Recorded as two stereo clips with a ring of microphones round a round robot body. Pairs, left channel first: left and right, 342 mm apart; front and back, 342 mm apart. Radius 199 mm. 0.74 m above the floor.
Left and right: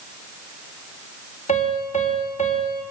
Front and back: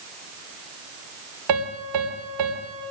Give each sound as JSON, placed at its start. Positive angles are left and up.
{"t": 1.5, "sound": "a piano", "azimuth_deg": 160, "distance_m": 3.5}